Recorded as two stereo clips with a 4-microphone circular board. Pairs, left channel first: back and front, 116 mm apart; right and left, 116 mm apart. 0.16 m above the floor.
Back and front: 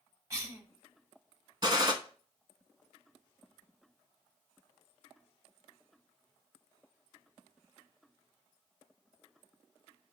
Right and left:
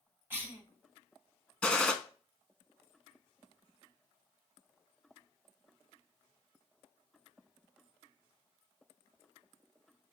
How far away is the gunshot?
About 0.6 m.